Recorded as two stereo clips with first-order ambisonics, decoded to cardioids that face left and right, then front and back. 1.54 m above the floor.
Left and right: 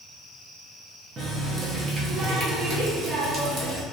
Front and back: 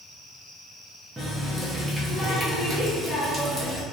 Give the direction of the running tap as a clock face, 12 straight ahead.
4 o'clock.